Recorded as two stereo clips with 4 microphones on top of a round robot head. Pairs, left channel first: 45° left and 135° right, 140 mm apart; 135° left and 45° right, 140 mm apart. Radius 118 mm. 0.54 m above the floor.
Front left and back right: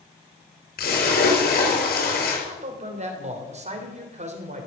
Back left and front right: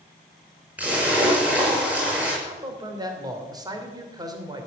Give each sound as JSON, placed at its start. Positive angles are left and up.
{"t": 0.8, "sound": "a splash", "azimuth_deg": 40, "distance_m": 6.0}
{"t": 2.4, "sound": "a man speaking", "azimuth_deg": -105, "distance_m": 3.0}